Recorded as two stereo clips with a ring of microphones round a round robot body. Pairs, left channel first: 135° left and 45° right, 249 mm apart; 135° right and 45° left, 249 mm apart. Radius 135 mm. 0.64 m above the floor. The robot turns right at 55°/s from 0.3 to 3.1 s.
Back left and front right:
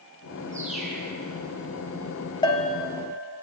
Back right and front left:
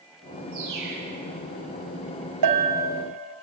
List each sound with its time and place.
0.5 s a bird: 30° left, 7 m; by 1.1 s 65° left, 7 m
2.4 s a bell: 60° left, 2.5 m; by 2.9 s 85° left, 2.5 m